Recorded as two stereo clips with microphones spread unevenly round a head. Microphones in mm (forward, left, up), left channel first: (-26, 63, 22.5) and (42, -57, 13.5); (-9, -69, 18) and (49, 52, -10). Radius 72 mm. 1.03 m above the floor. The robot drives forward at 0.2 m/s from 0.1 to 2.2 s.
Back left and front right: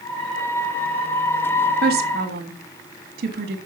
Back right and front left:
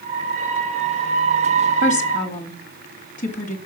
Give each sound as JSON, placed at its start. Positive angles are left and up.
{"t": 1.8, "sound": "a woman speaking", "azimuth_deg": -75, "distance_m": 1.8}